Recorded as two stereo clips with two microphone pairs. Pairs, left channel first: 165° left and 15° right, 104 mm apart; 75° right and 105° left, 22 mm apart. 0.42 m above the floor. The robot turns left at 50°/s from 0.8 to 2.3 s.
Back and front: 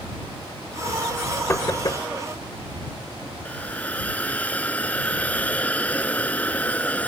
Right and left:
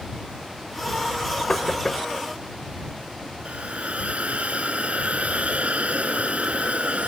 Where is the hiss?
90° left.